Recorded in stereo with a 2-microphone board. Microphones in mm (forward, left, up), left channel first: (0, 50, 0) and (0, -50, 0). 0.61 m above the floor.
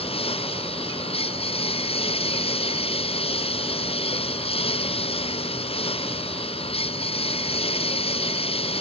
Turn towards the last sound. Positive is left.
turn(degrees=70)  # may be behind; listen again after turning